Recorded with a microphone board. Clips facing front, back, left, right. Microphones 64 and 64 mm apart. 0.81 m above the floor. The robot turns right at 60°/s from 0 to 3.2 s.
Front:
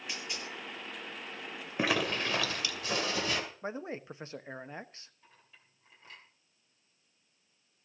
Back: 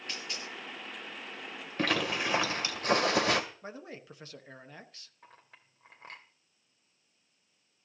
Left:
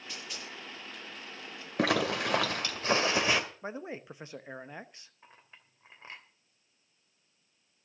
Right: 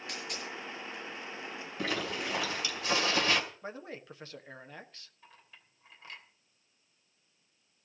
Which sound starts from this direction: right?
A dropped coin, at 0.1 s.